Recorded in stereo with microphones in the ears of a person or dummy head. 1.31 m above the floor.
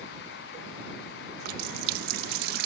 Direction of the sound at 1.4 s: 60° right (ahead or behind).